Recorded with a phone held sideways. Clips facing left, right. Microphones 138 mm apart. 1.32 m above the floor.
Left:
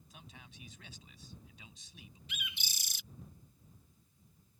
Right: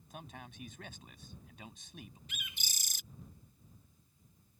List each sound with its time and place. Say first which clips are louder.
0.1 s a man speaking: right 8 dB; 50° right (ahead or behind)
2.3 s a bird: left 2 dB; 45° right (ahead or behind)